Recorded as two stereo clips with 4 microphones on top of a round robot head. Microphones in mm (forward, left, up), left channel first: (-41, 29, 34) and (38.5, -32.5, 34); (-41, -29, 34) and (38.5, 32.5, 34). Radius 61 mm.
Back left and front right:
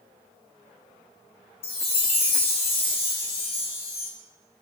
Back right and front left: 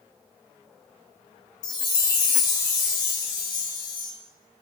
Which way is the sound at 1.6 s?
170° left.